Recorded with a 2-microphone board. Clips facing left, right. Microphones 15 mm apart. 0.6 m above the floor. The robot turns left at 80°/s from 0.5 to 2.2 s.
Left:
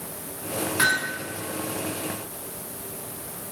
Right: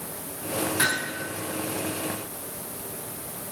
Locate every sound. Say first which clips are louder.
0.8 s hammering: left 5 dB; 30° left (ahead or behind), 5.5 m; by 1.2 s centre (ahead or behind), 5.5 m